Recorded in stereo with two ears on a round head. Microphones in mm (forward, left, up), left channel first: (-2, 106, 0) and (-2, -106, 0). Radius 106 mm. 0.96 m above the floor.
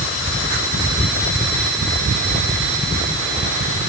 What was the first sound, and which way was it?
Only background noise.